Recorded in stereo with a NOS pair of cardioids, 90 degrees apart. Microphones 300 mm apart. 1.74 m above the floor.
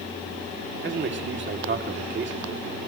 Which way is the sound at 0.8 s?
40° right.